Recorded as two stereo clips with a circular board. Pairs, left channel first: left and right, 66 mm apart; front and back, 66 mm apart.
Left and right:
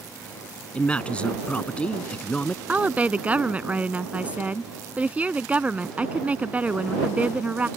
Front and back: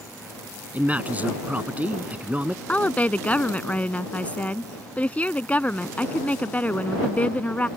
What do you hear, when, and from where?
0.7 s a man speaking: 145° left
2.7 s a woman speaking: 45° right